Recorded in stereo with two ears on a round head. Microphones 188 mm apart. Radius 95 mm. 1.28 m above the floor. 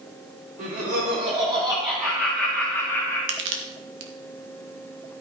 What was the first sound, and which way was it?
Laughter, 40° right (ahead or behind).